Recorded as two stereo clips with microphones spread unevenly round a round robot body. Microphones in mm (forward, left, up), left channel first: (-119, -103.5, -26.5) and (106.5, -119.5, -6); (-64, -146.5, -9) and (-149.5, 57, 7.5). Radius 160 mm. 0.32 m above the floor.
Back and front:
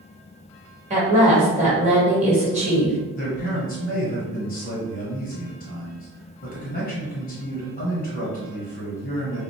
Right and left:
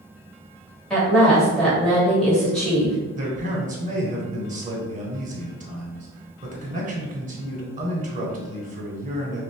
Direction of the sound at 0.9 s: 5° left.